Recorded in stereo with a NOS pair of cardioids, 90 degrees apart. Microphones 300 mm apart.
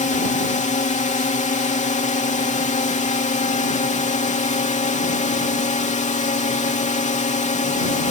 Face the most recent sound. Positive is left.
turn(degrees=25)